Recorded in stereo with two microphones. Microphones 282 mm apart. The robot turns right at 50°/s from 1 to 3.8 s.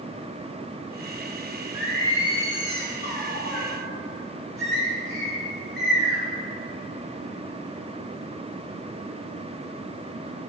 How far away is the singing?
About 2 m.